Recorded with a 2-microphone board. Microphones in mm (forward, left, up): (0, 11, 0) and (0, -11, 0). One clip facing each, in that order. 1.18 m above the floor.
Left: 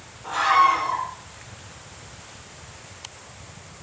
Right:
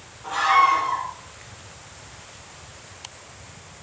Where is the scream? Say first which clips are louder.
Even; 10° right (ahead or behind), 5 m.